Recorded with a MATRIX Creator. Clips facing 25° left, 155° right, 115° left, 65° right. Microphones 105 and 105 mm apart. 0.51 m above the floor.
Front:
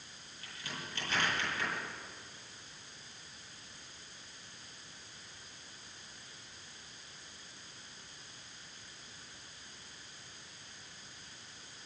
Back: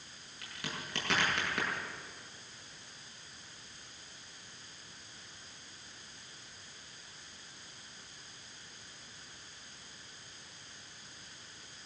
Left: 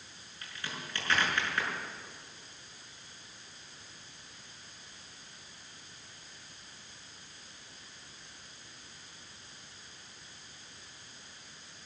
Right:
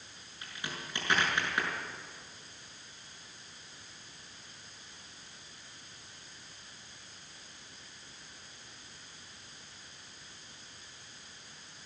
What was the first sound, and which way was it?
A crack, 140° right.